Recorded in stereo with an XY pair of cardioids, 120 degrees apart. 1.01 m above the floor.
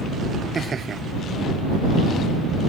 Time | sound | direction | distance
0.6 | laughter | 35° right | ?